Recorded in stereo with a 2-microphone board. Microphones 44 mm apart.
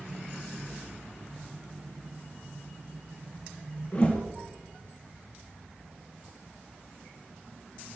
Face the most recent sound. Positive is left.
turn(degrees=30)  # may be behind; listen again after turning